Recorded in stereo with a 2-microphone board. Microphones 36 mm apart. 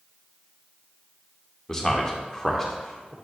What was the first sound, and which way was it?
A man speaking, 15° left (ahead or behind).